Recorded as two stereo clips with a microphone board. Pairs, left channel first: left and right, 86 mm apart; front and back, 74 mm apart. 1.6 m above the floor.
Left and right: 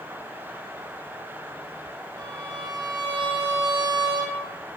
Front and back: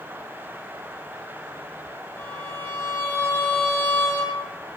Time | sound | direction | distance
2.2 | a violin | 60° right | 1.7 m